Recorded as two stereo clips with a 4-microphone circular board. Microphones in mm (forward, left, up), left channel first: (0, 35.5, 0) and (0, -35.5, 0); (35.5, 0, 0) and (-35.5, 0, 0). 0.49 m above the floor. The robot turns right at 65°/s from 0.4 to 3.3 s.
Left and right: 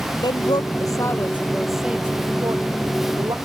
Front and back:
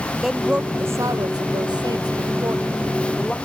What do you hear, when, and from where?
0.2 s a woman speaking: 95° left; by 3.4 s 75° right